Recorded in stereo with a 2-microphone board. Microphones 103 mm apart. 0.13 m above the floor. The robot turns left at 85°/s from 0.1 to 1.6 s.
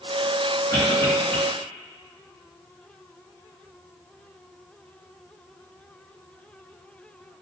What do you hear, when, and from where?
0.7 s a cough: 25° left (ahead or behind), 1.1 m; by 1.4 s 10° left (ahead or behind), 1.1 m